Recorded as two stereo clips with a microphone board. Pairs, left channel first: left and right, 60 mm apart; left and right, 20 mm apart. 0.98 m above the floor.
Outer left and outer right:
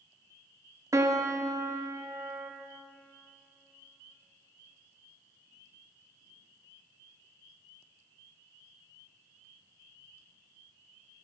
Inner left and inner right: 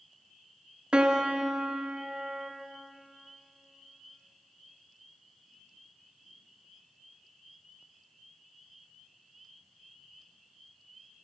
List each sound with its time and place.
0.9 s a piano: 55° right (ahead or behind), 0.5 m